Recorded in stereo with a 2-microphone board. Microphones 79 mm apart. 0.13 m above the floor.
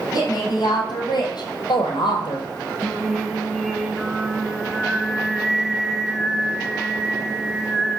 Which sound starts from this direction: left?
A woman speaking, at 0.1 s.